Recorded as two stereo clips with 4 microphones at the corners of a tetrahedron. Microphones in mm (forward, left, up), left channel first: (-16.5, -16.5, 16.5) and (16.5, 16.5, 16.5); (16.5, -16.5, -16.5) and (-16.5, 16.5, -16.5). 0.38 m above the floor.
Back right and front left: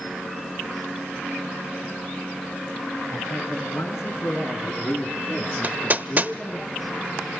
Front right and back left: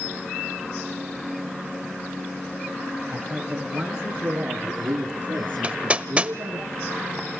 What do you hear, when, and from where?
3.1 s a man speaking: 135° right, 6 m; by 6.6 s 165° left, 5.5 m
5.6 s hammering: 80° left, 0.7 m